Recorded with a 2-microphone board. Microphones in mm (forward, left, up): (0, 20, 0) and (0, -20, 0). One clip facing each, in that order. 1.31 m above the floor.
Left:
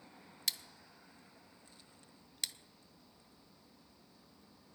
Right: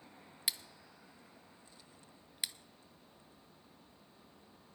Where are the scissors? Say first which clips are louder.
Even; 15° right (ahead or behind), 0.6 m.